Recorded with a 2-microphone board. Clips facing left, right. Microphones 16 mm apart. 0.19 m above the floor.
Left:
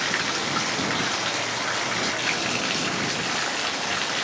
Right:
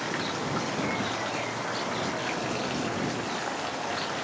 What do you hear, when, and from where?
0.0 s running water: 35° left (ahead or behind)